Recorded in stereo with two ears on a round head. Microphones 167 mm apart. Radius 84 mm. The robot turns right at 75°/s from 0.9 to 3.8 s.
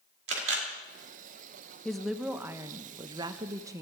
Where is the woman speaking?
5° left (ahead or behind), 0.6 m; by 3.8 s 15° right (ahead or behind), 0.6 m.